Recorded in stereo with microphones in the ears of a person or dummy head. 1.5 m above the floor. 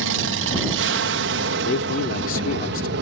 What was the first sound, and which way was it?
An aircraft, 65° right (ahead or behind).